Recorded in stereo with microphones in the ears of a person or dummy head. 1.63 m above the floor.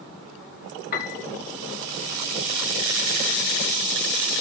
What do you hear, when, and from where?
0.9 s a piano: 50° left (ahead or behind), 1.8 m